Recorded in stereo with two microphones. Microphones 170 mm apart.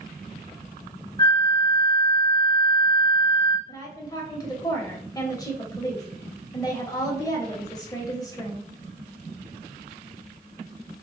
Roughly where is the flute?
Left.